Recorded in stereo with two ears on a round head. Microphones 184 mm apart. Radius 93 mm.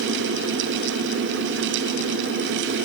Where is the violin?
I don't hear a violin.